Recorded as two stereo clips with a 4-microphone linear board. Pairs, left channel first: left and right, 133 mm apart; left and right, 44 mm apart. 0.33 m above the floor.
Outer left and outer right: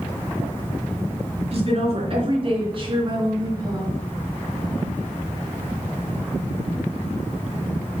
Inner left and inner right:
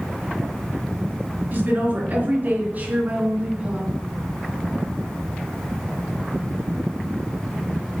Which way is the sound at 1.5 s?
50° right (ahead or behind).